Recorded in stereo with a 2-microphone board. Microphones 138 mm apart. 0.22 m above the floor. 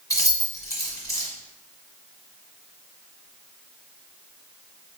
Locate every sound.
0.1 s keys jangling: 25° left (ahead or behind), 1.3 m